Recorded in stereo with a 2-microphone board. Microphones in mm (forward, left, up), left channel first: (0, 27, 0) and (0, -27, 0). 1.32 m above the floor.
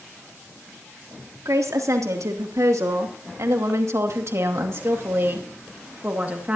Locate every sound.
1.4 s a woman speaking: 85° right, 3 m; by 6.6 s 30° right (ahead or behind), 2.5 m